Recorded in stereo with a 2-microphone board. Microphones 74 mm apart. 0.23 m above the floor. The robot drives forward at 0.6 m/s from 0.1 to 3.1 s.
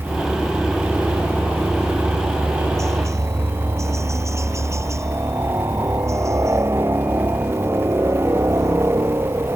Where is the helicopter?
45° right (ahead or behind); by 9.6 s 40° right (ahead or behind).